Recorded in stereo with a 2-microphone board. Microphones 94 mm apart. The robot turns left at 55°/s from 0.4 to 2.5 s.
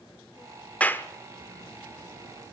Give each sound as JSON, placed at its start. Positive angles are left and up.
{"t": 0.8, "sound": "a clap", "side_deg": 15, "distance_m": 0.7}